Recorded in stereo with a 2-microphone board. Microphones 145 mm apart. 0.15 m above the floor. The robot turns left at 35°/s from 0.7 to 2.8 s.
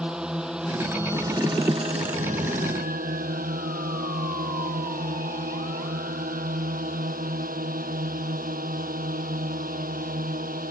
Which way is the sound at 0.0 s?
5° right.